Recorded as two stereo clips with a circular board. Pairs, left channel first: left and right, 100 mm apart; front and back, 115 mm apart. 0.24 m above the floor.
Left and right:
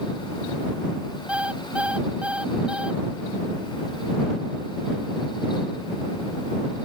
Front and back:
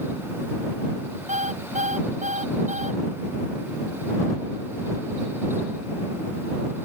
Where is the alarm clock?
170° right.